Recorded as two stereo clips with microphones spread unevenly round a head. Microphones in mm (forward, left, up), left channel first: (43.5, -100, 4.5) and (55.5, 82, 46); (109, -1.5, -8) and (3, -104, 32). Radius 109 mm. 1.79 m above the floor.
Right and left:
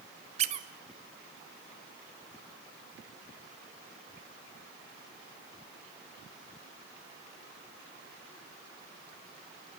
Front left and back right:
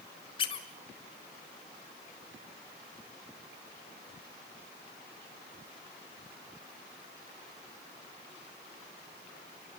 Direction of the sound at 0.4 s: 115° left.